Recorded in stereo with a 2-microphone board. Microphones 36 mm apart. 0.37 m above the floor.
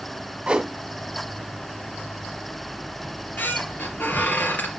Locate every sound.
0.5 s a whoosh: 30° right (ahead or behind), 1.5 m
3.0 s a squeak: 65° left (ahead or behind), 2.5 m